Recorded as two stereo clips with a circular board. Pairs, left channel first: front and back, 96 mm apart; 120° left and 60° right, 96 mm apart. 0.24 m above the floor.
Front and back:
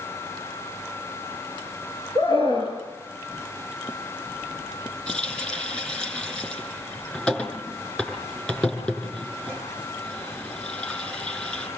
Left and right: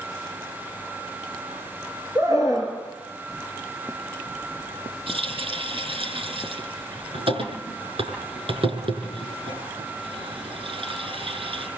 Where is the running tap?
75° right, 6 m.